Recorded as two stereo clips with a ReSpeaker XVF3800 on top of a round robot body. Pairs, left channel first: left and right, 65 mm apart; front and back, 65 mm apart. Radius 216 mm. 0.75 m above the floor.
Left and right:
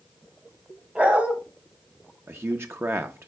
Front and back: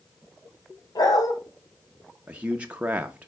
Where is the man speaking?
120° right, 0.9 m.